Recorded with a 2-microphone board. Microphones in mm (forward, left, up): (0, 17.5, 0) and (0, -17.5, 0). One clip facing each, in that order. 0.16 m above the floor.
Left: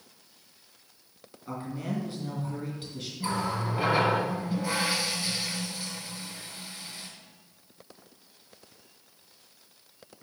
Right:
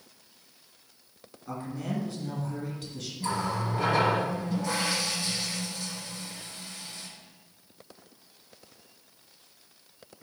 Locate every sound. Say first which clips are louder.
1.5 s a man speaking: even; 10° left (ahead or behind), 2.5 m
3.2 s a running tap: even; 15° left (ahead or behind), 1.9 m